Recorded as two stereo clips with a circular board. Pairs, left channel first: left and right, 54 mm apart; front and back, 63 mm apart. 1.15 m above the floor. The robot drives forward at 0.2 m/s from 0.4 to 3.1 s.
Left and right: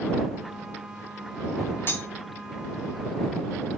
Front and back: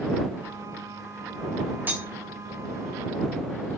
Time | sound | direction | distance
1.9 | cutlery clinking | 125° left | 0.6 m